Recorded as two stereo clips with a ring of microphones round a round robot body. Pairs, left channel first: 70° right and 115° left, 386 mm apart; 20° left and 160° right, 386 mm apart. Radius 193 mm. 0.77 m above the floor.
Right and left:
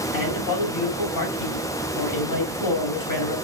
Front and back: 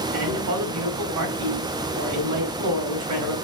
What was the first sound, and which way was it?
A man speaking, 110° right.